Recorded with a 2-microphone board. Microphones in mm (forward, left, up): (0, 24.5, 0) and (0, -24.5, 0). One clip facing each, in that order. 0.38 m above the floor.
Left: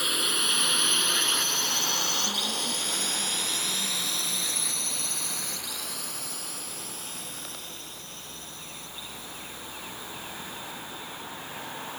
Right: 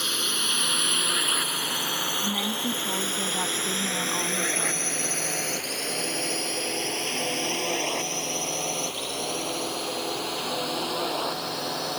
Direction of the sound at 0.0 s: 5° left (ahead or behind).